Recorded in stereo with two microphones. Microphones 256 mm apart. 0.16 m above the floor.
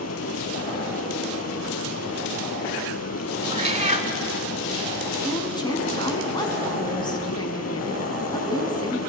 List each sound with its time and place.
0.0 s running water: 75° left (ahead or behind), 0.7 m
3.5 s a cat meowing: 25° right (ahead or behind), 0.6 m
5.2 s a woman speaking: 15° left (ahead or behind), 1.1 m